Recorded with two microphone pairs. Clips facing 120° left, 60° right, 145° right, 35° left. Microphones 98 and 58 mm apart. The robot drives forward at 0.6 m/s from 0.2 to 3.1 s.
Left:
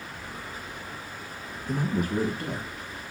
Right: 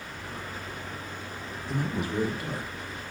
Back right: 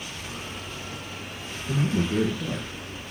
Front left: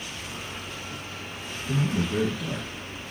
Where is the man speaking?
160° left, 2.5 m; by 2.8 s 165° left, 3.5 m.